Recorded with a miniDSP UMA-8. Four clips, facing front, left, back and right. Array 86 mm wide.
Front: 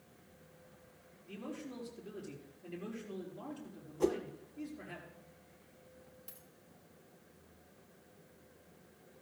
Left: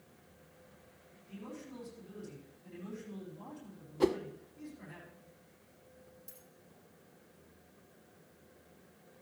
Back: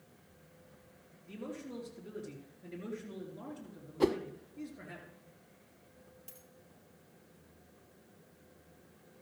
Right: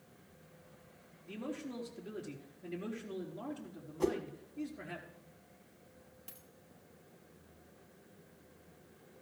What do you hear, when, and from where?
1.3 s a man speaking: 120° right, 4 m
4.0 s a whoosh: 145° left, 0.6 m
6.3 s a dropped coin: 100° right, 1.8 m